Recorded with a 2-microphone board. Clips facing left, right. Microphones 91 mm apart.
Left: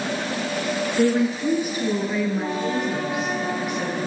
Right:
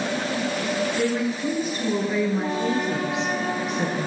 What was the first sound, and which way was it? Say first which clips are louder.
A woman speaking: left 4 dB; 30° left (ahead or behind).